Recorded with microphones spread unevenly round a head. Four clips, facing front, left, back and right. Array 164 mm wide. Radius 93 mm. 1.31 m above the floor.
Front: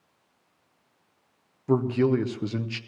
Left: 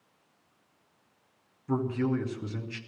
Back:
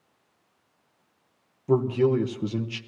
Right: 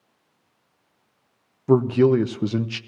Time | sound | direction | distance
1.7 | a man speaking | 80° right | 0.8 m